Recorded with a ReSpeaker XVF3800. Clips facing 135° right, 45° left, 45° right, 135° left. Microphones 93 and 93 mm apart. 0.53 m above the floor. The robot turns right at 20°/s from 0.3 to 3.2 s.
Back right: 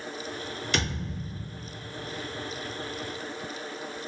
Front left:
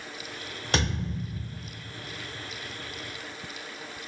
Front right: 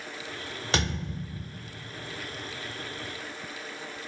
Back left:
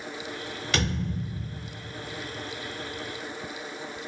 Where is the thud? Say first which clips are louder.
Front left 4 dB, back left 1 dB; 15° left, 1.1 m; by 1.5 s 30° left, 1.1 m.